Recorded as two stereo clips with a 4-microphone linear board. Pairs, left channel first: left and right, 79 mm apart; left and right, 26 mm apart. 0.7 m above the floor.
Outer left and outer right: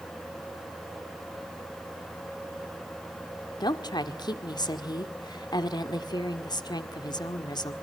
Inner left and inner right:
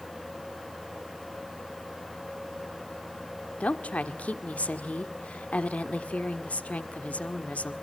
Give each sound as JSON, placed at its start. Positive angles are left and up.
{"t": 3.6, "sound": "a woman speaking", "side_deg": 65, "distance_m": 1.6}